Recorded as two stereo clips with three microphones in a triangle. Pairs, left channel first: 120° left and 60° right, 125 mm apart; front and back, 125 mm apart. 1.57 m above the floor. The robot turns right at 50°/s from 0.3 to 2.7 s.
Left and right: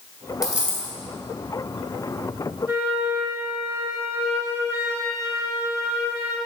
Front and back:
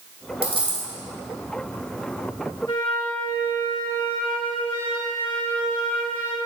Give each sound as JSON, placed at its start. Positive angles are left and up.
{"t": 0.4, "sound": "a dropped coin", "azimuth_deg": -145, "distance_m": 3.0}
{"t": 2.7, "sound": "a flute", "azimuth_deg": -5, "distance_m": 1.3}